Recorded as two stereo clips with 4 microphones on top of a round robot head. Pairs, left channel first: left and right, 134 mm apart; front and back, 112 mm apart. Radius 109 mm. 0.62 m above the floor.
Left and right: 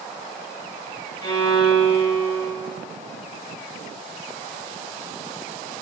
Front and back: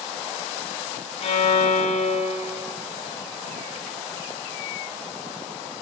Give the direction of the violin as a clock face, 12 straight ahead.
11 o'clock.